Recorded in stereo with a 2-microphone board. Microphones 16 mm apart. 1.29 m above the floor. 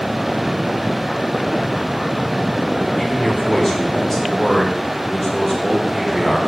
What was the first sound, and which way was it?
A man speaking, 25° left (ahead or behind).